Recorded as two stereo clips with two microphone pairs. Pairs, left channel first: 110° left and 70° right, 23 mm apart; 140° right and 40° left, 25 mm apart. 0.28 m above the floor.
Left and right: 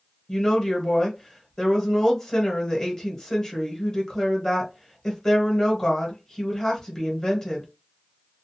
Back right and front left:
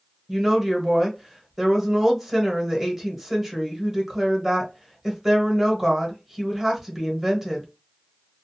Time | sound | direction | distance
0.3 | a woman speaking | 90° left | 1.1 m